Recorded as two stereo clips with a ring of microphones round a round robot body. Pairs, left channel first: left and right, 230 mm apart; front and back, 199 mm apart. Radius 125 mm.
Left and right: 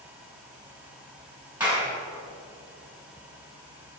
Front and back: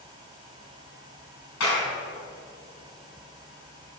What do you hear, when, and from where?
1.6 s a clap: 5° right, 5 m